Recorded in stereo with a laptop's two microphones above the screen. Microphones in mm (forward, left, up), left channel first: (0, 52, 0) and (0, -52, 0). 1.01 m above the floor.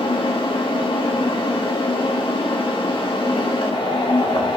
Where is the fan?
55° left (ahead or behind), 1.4 m.